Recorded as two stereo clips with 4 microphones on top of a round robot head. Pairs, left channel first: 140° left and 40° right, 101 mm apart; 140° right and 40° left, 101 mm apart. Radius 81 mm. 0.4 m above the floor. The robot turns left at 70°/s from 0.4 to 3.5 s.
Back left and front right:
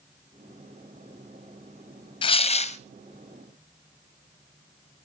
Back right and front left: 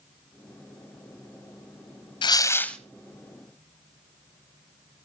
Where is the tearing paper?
Straight behind, 1.1 m; by 2.8 s 140° left, 1.1 m.